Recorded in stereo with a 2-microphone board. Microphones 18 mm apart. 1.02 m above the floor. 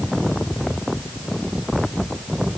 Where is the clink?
No clink in this recording.